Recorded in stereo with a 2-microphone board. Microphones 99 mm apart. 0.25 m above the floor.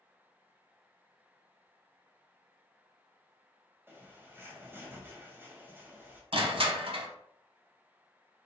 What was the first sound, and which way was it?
A bird, 25° right (ahead or behind).